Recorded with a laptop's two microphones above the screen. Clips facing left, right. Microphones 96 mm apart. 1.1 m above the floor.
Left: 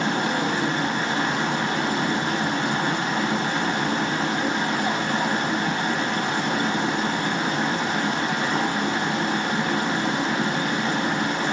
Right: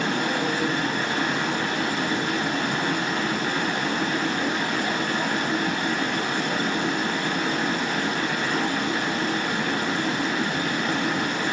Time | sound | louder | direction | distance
0.0 | running water | left 1 dB | 30° left (ahead or behind) | 0.9 m